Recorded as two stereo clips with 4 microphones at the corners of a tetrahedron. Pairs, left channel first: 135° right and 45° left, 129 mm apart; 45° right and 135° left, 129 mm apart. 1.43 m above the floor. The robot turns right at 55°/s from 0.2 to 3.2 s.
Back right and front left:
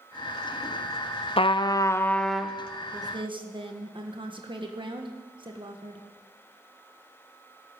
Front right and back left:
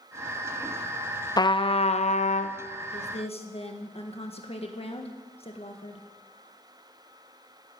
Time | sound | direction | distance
1.4 | a trumpet | 100° right | 0.5 m
2.9 | a woman speaking | 20° right | 1.6 m